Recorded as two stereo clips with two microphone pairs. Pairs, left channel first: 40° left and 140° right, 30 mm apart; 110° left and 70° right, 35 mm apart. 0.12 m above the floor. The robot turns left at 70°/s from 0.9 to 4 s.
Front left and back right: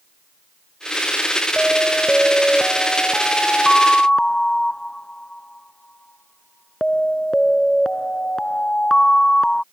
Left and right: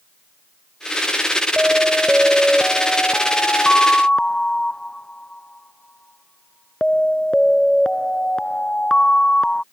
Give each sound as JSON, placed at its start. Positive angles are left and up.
{"t": 1.6, "sound": "an alarm", "azimuth_deg": -105}